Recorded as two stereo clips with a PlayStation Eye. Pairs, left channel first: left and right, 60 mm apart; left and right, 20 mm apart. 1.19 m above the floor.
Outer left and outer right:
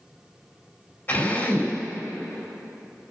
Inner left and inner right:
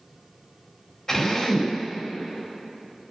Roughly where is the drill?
Left.